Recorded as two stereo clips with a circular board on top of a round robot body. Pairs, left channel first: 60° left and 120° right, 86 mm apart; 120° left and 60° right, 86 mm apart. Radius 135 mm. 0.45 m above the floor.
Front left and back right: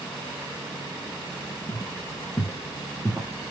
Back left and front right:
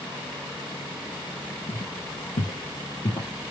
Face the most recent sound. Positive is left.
turn(degrees=170)